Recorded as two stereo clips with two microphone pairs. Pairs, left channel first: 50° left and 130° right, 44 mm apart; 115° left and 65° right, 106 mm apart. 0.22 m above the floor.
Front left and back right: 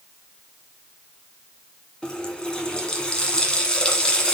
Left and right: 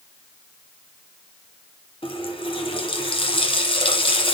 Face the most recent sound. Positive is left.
turn(degrees=115)